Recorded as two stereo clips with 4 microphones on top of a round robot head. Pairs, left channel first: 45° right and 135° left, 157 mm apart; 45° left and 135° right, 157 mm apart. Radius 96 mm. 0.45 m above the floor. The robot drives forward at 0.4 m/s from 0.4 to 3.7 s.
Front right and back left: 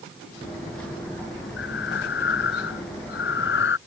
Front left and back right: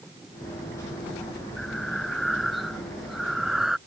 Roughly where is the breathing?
Ahead right.